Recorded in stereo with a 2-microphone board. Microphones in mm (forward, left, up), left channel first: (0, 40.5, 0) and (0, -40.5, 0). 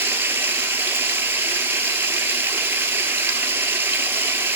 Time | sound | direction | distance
0.0 | running water | 30° right (ahead or behind) | 0.8 m